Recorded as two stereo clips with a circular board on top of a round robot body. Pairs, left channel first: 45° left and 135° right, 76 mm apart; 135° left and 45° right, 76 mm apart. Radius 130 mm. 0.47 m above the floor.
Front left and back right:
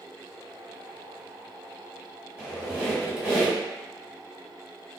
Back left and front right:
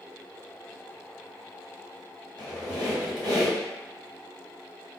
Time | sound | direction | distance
2.4 | a squeak | 65° right | 1.5 m